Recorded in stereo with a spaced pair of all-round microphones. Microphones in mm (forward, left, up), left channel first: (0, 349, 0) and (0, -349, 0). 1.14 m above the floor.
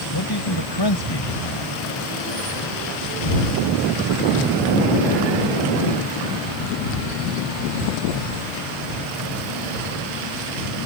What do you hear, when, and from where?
0.1 s a man speaking: 35° left (ahead or behind)